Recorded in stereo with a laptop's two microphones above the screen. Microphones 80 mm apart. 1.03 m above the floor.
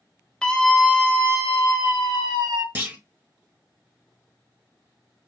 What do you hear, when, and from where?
0.4 s a scream: 10° left (ahead or behind), 0.8 m; by 2.6 s 60° right (ahead or behind), 2 m
2.8 s a clunk: 25° right (ahead or behind), 1.1 m